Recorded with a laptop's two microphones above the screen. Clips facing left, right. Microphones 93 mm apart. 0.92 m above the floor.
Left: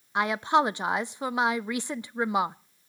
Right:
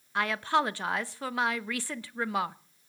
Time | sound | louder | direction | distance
0.1 | a woman speaking | left 4 dB | 20° left (ahead or behind) | 0.6 m